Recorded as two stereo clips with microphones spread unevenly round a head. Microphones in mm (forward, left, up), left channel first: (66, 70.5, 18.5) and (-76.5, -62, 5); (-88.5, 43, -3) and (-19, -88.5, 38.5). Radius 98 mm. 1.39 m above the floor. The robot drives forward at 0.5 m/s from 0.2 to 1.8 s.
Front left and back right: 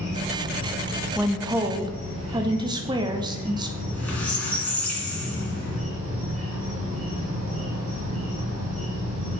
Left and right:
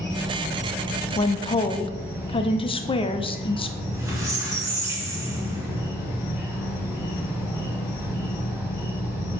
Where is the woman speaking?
145° left, 0.6 m; by 3.7 s 160° left, 0.8 m.